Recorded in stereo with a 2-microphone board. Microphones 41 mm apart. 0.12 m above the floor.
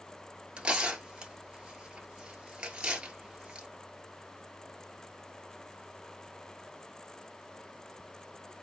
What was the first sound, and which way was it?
Tearing paper, 25° right (ahead or behind).